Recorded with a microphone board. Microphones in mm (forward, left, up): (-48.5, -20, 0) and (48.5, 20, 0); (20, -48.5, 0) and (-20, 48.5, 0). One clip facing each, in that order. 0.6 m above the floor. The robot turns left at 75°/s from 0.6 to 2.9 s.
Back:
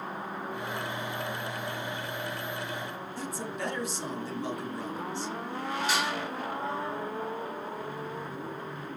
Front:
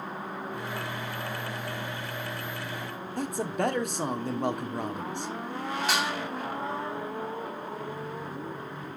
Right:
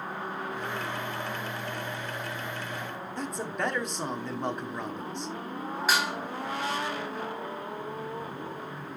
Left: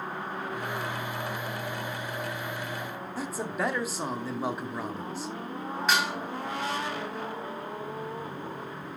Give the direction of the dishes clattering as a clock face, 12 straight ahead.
11 o'clock.